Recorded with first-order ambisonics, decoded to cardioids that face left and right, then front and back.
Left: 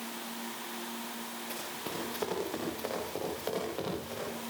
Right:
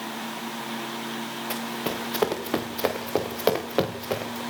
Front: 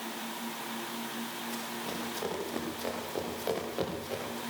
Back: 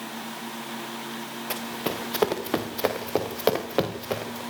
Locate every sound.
1.5 s running footsteps: 145° right, 4.5 m; by 4.4 s 130° right, 5.5 m